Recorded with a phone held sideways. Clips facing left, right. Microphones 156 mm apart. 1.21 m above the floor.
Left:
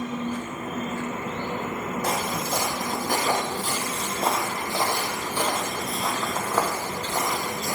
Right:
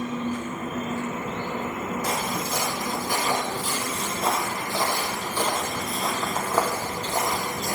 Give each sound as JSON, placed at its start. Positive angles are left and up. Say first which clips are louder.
{"t": 2.0, "sound": "footsteps", "louder": "left 1 dB", "side_deg": 60, "distance_m": 2.5}